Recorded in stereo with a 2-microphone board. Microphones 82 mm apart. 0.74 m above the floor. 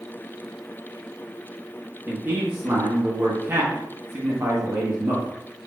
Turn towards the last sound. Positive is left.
turn(degrees=-30)  # may be behind; listen again after turning